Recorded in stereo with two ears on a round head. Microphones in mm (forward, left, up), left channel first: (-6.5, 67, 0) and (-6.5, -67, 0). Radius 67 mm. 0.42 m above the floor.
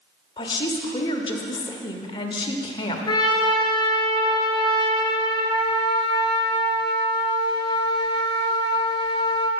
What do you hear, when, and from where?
0.4 s a woman speaking: 35° left (ahead or behind), 1.0 m
3.1 s a trumpet: 30° left (ahead or behind), 1.1 m